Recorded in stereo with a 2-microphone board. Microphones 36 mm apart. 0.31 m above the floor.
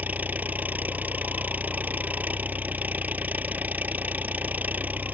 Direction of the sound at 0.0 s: 55° right (ahead or behind).